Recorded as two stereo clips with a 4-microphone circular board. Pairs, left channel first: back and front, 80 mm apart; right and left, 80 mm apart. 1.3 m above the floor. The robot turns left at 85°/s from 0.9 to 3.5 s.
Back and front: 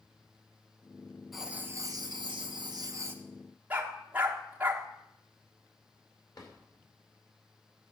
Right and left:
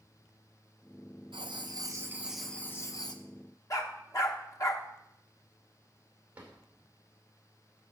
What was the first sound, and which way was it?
Writing, 90° left.